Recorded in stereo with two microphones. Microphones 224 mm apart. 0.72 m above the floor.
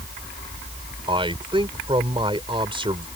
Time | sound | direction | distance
1.1 | a man speaking | 25° right (ahead or behind) | ?